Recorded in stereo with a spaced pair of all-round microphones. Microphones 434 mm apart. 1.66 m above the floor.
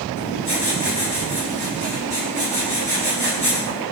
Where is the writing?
70° right (ahead or behind), 7 m.